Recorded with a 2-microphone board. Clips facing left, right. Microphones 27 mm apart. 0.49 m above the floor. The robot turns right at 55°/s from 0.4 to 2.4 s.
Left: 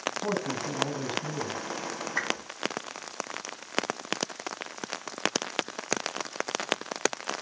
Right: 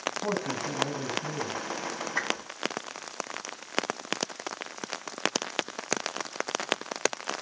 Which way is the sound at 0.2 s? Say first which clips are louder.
Even; 10° right.